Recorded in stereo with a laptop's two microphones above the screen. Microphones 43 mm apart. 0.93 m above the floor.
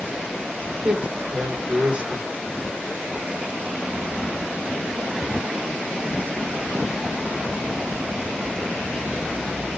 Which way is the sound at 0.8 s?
30° right (ahead or behind).